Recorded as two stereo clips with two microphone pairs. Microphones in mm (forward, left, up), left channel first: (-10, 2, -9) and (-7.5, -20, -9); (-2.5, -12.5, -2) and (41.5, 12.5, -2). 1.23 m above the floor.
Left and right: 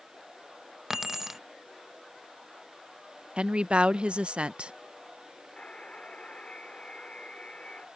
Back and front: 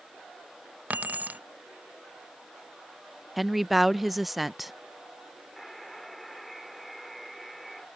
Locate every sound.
0.9 s keys jangling: 15° right
3.4 s a woman speaking: 55° right
5.6 s a buzzer: 120° left